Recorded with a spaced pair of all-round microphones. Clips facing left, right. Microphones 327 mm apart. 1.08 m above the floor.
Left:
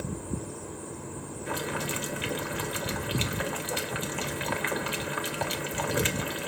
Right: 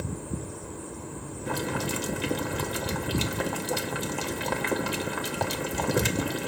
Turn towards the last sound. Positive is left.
turn(degrees=-55)  # may be behind; listen again after turning